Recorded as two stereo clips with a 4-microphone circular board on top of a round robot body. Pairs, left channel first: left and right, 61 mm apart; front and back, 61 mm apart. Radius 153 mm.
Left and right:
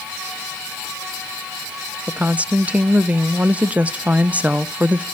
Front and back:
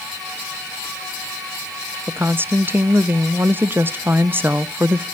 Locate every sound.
2.1 s a woman speaking: 145° right, 0.6 m